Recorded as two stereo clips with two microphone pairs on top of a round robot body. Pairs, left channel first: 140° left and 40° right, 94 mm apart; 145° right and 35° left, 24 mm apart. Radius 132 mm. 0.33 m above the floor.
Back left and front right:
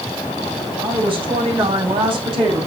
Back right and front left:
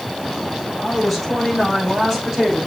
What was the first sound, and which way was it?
A woman speaking, 45° right.